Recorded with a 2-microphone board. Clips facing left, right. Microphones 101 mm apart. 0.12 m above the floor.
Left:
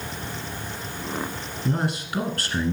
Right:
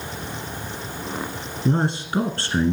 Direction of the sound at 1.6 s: 25° right (ahead or behind).